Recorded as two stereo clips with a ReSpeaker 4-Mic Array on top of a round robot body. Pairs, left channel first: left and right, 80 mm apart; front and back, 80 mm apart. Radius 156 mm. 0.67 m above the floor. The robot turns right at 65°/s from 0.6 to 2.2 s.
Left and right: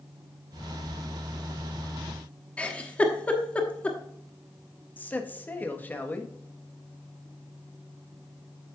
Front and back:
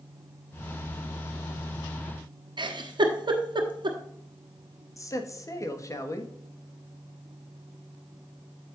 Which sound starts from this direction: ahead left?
A man speaking, at 5.0 s.